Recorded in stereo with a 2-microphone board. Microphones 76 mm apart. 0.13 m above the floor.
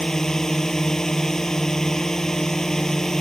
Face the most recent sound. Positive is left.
turn(degrees=5)  # may be behind; listen again after turning